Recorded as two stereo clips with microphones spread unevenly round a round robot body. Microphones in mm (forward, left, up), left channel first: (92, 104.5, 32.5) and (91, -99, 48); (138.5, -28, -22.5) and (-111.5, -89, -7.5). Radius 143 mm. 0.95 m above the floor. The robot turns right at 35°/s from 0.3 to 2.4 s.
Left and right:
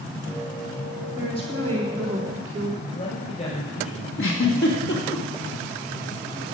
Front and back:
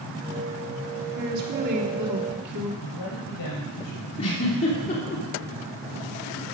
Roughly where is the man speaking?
Ahead left.